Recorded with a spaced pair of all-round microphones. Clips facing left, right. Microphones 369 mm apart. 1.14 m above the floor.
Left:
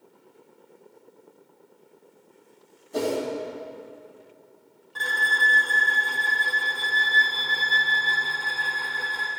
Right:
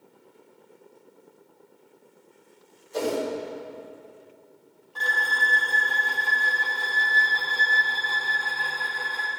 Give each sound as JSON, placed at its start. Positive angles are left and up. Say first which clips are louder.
{"t": 2.9, "sound": "a whoosh", "louder": "left 1 dB", "side_deg": 70, "distance_m": 4.5}
{"t": 5.0, "sound": "a violin", "louder": "even", "side_deg": 30, "distance_m": 2.5}